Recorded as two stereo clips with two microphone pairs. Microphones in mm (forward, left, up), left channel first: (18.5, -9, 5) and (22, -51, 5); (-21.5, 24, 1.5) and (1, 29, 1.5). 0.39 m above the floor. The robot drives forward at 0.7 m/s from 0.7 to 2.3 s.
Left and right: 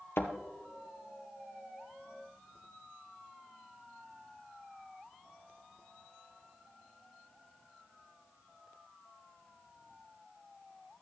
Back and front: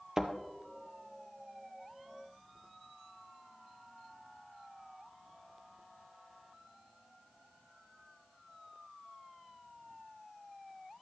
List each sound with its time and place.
0.2 s a thud: 75° left, 1.3 m